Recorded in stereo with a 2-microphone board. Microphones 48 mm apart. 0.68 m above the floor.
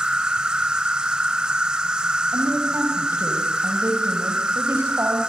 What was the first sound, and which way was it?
An insect, 20° right (ahead or behind).